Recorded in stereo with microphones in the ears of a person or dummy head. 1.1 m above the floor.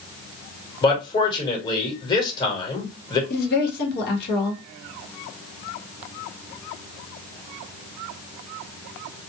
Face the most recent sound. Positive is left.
turn(degrees=55)  # may be behind; listen again after turning